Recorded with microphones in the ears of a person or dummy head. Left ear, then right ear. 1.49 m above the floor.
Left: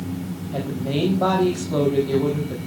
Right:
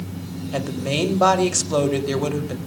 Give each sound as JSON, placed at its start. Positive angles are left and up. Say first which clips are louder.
{"t": 0.5, "sound": "a woman speaking", "louder": "right 2 dB", "side_deg": -70, "distance_m": 4.0}